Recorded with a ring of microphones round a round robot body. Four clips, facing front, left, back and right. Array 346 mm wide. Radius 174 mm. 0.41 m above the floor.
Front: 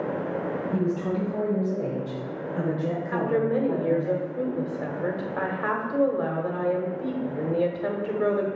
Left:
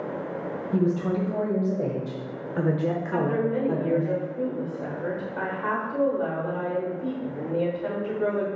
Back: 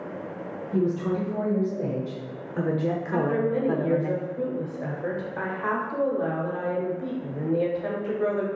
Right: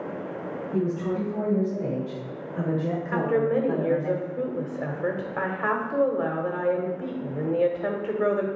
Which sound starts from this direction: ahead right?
A woman speaking, at 3.1 s.